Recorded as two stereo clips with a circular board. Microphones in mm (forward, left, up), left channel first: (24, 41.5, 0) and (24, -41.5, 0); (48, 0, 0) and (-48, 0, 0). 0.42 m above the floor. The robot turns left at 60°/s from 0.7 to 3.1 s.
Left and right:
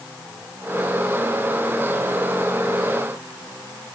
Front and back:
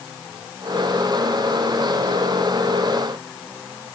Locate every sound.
Only background noise.